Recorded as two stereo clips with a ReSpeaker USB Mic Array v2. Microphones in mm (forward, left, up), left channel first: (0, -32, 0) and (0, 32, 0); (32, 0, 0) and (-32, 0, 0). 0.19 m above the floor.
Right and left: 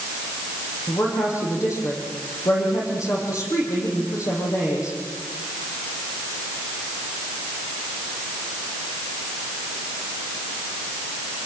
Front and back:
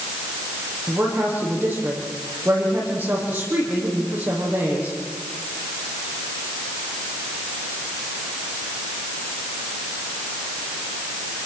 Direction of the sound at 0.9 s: 120° right.